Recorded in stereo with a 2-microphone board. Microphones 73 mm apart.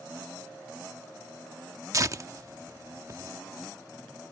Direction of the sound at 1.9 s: 45° right (ahead or behind).